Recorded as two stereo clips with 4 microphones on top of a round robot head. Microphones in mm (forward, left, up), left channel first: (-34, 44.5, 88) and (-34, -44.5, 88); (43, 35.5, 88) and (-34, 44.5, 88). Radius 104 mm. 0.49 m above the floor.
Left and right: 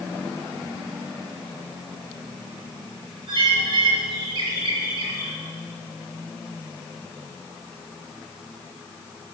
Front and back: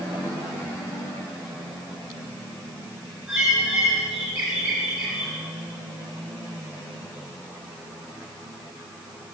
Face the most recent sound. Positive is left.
turn(degrees=-105)